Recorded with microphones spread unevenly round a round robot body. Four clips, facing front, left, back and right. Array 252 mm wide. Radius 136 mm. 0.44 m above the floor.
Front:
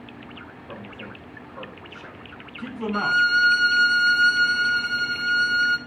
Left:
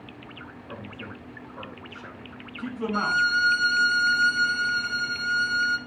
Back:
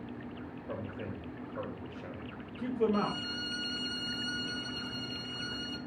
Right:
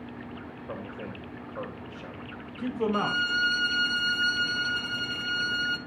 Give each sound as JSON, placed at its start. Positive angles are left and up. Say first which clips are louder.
{"t": 0.7, "sound": "a man speaking", "louder": "right 2 dB, front 1 dB", "azimuth_deg": -130, "distance_m": 2.5}
{"t": 2.9, "sound": "a violin", "louder": "left 4 dB, front 13 dB", "azimuth_deg": -20, "distance_m": 1.0}